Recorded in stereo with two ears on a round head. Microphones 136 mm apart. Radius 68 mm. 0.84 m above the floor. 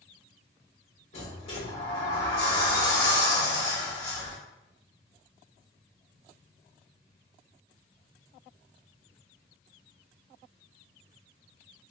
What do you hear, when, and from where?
1.1 s a sliding door: 45° left (ahead or behind), 1.8 m